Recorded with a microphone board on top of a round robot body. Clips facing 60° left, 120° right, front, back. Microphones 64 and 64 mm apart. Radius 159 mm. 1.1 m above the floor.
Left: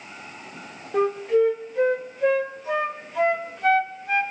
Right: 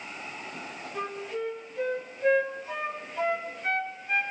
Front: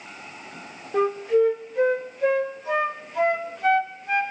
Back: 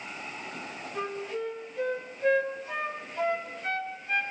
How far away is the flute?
About 0.6 m.